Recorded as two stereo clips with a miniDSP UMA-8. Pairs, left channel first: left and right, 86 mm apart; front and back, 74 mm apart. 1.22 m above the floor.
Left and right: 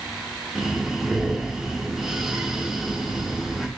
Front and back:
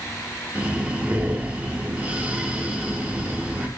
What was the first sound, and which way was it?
Breathing, 170° right.